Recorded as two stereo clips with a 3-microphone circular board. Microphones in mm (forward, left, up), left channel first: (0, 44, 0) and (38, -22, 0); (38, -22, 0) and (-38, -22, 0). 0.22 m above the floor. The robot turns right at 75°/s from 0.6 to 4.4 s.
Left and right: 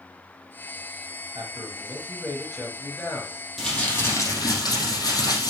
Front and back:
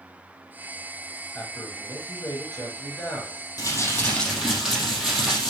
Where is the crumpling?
30° left, 4.5 m; by 5.5 s 90° left, 4.5 m.